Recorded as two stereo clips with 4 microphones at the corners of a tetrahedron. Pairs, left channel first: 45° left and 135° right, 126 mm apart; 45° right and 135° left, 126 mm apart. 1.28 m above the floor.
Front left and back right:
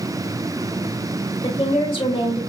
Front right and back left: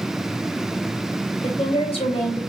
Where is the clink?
I don't hear a clink.